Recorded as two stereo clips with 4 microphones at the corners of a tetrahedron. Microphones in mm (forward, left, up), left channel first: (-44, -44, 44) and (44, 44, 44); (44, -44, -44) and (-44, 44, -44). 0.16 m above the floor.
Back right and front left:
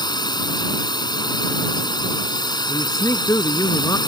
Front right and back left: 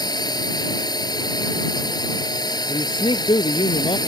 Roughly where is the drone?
Right.